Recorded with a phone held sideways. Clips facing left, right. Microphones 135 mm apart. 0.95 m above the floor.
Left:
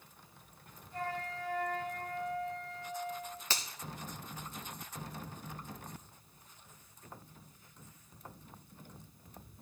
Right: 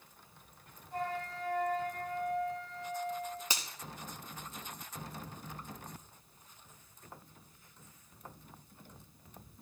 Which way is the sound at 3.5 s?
15° right (ahead or behind).